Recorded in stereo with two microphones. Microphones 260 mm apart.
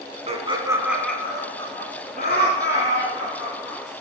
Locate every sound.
0.3 s laughter: 25° right (ahead or behind), 1.1 m; by 3.8 s 55° left (ahead or behind), 2 m